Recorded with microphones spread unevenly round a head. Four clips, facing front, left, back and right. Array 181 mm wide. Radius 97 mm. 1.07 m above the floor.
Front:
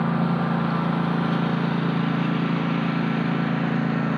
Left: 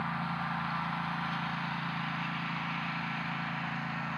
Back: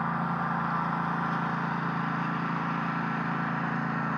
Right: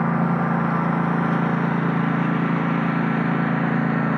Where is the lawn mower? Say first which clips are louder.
Right 14 dB, front 6 dB; 60° right; by 4.2 s 65° right.